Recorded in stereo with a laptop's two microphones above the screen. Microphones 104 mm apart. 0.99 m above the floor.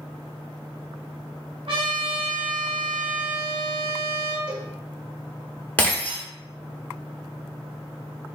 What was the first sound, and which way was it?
A trumpet, 70° right (ahead or behind).